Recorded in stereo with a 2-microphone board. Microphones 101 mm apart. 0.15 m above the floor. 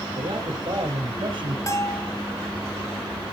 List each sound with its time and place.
0.1 s a man speaking: 60° right (ahead or behind), 2.5 m; by 1.6 s 55° right (ahead or behind), 3 m
1.7 s a bell: 30° left (ahead or behind), 1.4 m